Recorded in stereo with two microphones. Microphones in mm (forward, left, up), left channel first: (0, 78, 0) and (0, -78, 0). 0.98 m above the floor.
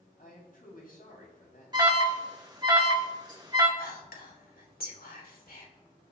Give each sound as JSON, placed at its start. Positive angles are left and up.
{"t": 0.2, "sound": "a man speaking", "side_deg": 70, "distance_m": 8.0}
{"t": 1.7, "sound": "an alarm", "side_deg": -25, "distance_m": 2.0}
{"t": 3.8, "sound": "whispering", "side_deg": 80, "distance_m": 3.5}